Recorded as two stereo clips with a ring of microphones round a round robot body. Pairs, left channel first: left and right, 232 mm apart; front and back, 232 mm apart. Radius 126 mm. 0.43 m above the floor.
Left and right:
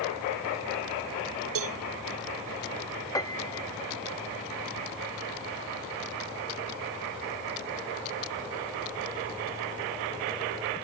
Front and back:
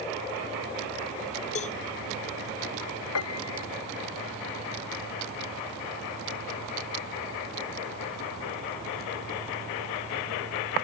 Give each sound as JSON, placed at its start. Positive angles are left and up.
{"t": 1.6, "sound": "a cowbell", "azimuth_deg": -65}
{"t": 3.1, "sound": "a piano", "azimuth_deg": 15}